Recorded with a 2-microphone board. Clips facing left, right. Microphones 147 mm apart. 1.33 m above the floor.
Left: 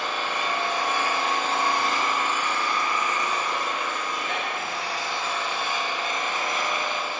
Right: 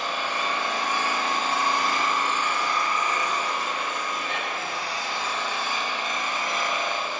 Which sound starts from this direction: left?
An engine running, at 0.0 s.